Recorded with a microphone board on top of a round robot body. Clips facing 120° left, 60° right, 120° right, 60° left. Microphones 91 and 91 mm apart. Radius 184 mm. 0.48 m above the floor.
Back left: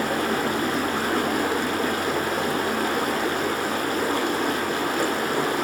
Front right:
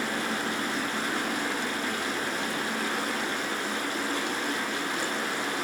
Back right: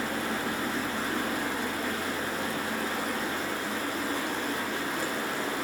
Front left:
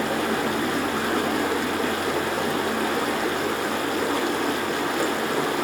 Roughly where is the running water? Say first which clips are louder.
Back left 7 dB, front left 7 dB; left.